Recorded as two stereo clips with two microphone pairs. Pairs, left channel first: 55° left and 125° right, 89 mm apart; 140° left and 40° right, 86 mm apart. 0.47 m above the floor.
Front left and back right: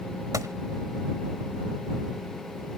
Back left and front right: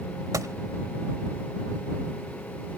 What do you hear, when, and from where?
0.3 s a gunshot: 80° right